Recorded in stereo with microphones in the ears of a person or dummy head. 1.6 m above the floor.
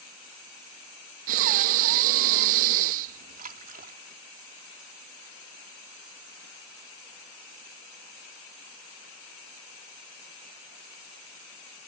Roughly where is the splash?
Right.